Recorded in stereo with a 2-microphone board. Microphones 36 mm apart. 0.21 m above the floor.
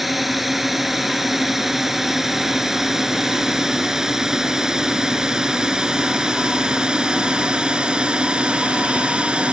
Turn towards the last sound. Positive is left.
turn(degrees=-30)  # may be behind; listen again after turning